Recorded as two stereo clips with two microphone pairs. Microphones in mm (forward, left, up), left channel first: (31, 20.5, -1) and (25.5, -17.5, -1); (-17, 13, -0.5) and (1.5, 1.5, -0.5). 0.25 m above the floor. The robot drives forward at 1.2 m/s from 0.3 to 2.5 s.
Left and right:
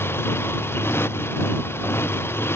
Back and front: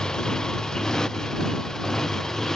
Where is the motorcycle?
90° left; by 2.6 s 80° left.